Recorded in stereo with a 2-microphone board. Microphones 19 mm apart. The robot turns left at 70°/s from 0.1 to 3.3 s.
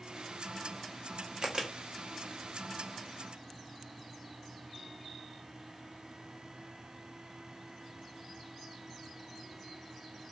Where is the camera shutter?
50° right (ahead or behind), 1.1 m; by 1.7 s 30° right (ahead or behind), 1.1 m.